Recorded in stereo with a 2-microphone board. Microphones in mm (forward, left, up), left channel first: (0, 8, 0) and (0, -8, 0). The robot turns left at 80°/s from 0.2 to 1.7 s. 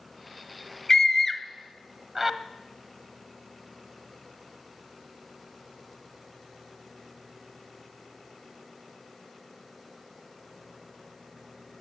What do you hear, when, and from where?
0.9 s a scream: 30° left (ahead or behind), 1.3 m; by 2.4 s 20° right (ahead or behind), 1.3 m